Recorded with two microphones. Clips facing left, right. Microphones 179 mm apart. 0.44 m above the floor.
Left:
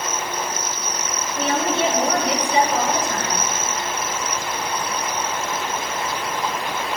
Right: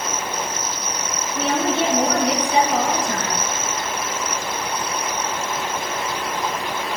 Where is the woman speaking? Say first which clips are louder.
Right 1 dB; 70° right (ahead or behind), 3.5 m.